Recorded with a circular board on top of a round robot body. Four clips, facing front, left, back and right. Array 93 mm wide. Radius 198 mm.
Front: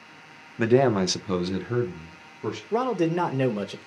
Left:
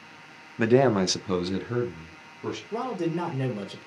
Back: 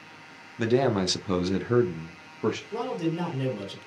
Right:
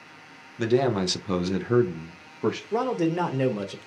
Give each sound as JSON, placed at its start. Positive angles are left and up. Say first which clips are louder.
{"t": 0.6, "sound": "a man speaking", "louder": "left 2 dB, front 3 dB", "azimuth_deg": 55, "distance_m": 0.8}
{"t": 2.7, "sound": "a man speaking", "louder": "right 3 dB, front 5 dB", "azimuth_deg": -25, "distance_m": 1.1}